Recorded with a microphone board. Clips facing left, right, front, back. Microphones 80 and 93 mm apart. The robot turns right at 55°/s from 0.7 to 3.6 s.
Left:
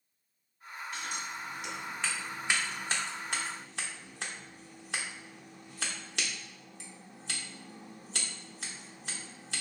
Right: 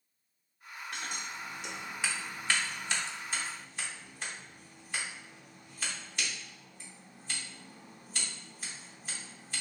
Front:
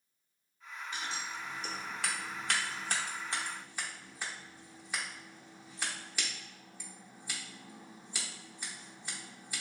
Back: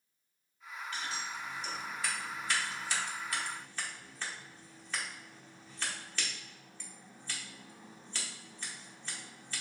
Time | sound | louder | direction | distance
0.9 | scissors | left 1 dB, even | 70° right | 0.9 m